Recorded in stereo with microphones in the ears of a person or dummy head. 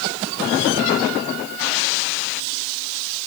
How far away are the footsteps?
No footsteps in this recording.